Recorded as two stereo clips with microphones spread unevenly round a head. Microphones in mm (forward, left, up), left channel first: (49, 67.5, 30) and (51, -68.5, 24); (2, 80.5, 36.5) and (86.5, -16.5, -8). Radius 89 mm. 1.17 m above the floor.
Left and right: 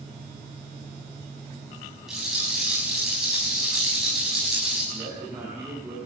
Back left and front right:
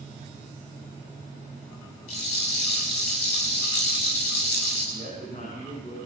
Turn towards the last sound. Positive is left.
turn(degrees=-170)